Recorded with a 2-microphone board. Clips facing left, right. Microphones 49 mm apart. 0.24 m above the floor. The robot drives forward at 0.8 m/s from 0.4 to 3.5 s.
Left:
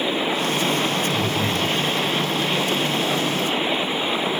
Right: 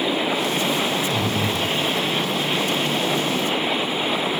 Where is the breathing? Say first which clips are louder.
Even; 50° right (ahead or behind), 4.5 m; by 1.6 s 55° right (ahead or behind), 4 m.